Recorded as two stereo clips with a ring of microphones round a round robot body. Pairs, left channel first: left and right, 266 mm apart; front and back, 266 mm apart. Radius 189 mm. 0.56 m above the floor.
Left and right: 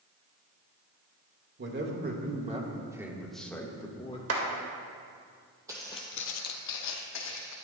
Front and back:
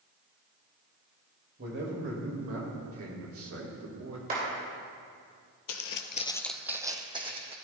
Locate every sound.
1.6 s a man speaking: 125° right, 1.9 m; by 4.2 s 155° left, 1.9 m
4.3 s a clap: 115° right, 2.5 m
5.7 s footsteps: 10° right, 0.9 m; by 7.5 s 110° left, 2.5 m